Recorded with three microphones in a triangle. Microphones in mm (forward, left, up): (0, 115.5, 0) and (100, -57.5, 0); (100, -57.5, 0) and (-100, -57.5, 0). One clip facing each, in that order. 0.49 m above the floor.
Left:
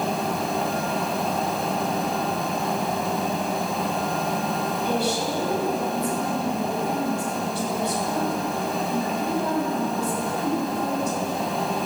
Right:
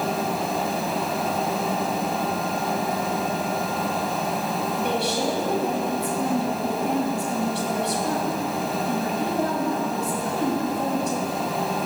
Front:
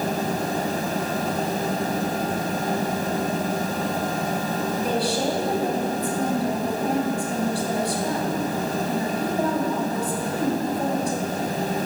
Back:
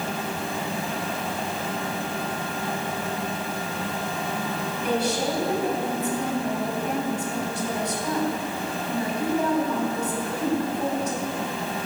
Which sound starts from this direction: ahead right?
A woman speaking, at 4.8 s.